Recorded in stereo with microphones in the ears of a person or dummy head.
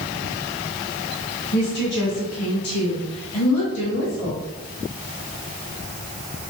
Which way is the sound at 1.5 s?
50° left (ahead or behind).